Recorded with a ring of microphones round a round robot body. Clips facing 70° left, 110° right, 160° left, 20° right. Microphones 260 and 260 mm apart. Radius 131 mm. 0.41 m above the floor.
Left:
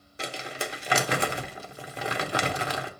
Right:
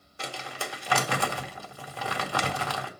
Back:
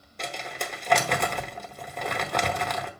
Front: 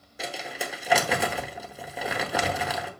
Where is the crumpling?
50° left, 0.9 m.